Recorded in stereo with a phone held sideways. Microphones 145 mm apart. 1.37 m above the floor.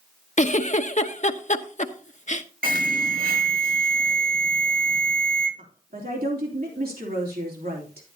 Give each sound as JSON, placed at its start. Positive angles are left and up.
{"t": 0.4, "sound": "a giggle", "side_deg": 55, "distance_m": 0.8}
{"t": 2.6, "sound": "an alarm", "side_deg": -85, "distance_m": 5.0}
{"t": 5.6, "sound": "a woman speaking", "side_deg": -90, "distance_m": 3.0}